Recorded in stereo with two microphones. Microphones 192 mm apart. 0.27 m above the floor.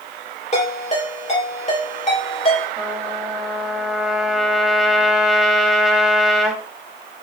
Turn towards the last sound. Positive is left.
turn(degrees=0)  # may be behind; listen again after turning